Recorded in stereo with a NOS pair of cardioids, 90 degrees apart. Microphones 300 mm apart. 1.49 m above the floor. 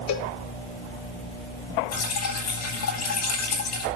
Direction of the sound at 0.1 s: 65° left.